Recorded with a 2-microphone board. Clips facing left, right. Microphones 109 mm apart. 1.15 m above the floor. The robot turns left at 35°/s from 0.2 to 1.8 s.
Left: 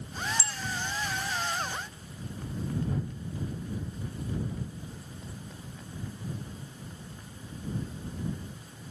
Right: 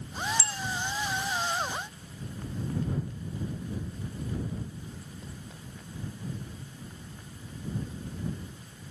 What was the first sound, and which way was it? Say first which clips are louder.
A bicycle bell: right 2 dB; 80° right.